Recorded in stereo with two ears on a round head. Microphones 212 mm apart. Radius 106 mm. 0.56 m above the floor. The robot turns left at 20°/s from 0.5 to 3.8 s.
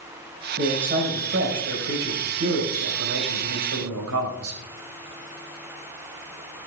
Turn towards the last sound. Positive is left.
turn(degrees=-95)